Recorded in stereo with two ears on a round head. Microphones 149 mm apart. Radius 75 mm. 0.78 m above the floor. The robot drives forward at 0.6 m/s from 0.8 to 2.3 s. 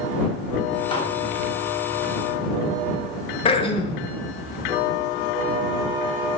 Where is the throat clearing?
30° left (ahead or behind), 0.5 m.